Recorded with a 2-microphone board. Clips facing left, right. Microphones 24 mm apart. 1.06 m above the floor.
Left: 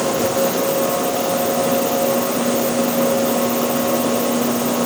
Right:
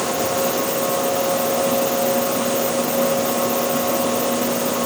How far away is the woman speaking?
I don't hear a woman speaking.